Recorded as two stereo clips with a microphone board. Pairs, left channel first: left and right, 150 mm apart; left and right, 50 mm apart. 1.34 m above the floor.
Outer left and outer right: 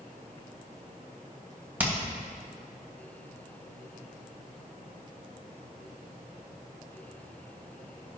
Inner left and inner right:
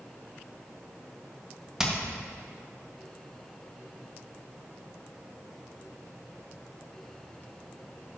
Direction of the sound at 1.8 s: 10° right (ahead or behind).